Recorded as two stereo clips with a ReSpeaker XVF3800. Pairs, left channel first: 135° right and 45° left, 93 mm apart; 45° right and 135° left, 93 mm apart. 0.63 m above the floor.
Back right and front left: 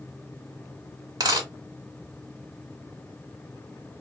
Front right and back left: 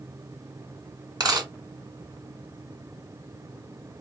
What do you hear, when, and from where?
1.2 s a dropped coin: 90° left, 1.1 m